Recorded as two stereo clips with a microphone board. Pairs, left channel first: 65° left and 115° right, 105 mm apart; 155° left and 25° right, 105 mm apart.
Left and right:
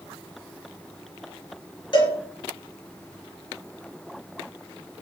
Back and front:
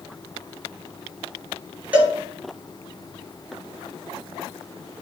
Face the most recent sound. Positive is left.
turn(degrees=50)